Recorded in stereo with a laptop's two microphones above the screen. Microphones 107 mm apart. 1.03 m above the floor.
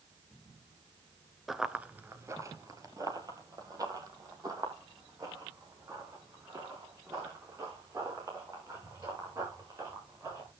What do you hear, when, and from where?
1.5 s running footsteps: 5° right (ahead or behind), 1.0 m; by 10.5 s 35° right (ahead or behind), 9.5 m